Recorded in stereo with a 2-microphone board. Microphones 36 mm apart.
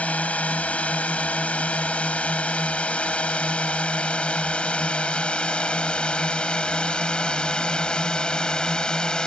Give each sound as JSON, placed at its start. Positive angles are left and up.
{"t": 0.0, "sound": "a drone", "side_deg": 40}